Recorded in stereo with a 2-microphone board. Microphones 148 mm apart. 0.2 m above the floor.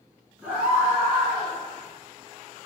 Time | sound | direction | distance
0.4 | a scream | 5° right (ahead or behind) | 3 m